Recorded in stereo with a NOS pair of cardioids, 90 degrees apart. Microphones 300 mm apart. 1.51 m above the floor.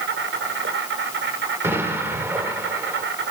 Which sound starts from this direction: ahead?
An explosion, at 1.6 s.